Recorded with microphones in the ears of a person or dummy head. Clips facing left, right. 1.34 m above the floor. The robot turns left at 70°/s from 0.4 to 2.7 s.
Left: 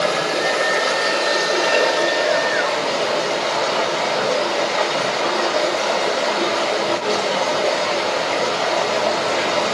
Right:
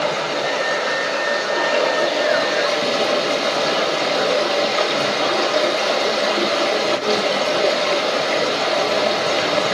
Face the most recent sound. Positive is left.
turn(degrees=-45)